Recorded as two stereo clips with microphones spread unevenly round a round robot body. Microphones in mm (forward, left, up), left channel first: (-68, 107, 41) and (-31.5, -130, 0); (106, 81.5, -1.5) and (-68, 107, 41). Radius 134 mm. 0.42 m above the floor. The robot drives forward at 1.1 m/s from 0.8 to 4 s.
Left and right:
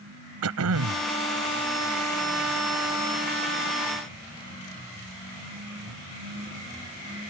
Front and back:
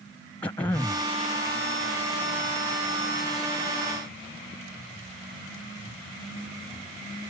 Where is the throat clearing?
85° right; by 1.0 s 95° right.